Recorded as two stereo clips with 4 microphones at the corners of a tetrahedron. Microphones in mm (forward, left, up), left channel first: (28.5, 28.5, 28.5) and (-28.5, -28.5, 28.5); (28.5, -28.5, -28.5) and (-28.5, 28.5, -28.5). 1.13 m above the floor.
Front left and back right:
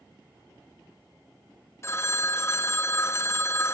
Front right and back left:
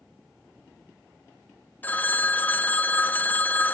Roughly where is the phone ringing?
Ahead.